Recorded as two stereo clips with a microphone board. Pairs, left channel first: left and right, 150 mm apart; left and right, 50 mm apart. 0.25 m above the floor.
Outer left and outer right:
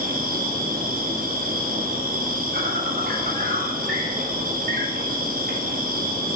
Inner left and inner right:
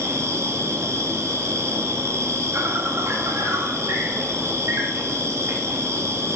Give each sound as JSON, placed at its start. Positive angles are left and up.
{"t": 0.0, "sound": "an insect", "side_deg": -75, "distance_m": 0.9}